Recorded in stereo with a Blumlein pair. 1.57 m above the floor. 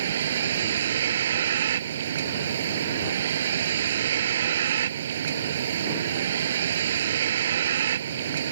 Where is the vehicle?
60° right.